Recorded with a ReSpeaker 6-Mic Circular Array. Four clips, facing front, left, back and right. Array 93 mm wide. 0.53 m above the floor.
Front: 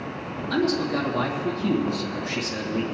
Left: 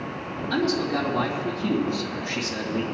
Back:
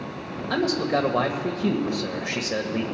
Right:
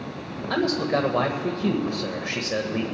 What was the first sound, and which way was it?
A man speaking, 130° right.